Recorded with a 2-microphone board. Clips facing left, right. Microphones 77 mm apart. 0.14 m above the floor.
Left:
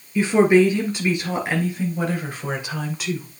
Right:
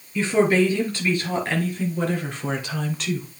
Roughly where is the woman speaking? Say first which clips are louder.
Left 4 dB; centre.